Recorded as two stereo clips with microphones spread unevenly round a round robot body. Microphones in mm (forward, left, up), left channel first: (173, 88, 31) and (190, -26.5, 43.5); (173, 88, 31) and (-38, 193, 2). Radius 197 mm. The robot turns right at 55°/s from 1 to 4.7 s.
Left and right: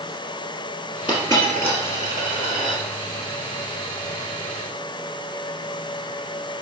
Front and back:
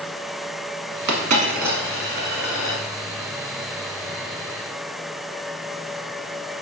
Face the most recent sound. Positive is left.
turn(degrees=5)